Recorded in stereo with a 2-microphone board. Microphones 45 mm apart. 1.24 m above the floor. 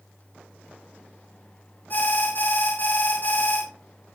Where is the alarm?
45° left (ahead or behind), 2.5 m.